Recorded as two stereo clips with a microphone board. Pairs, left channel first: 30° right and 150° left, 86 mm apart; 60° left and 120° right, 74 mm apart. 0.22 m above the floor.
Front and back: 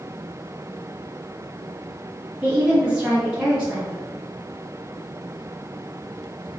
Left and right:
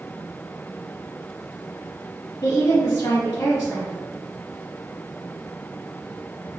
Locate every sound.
2.4 s a woman speaking: 70° left, 1.5 m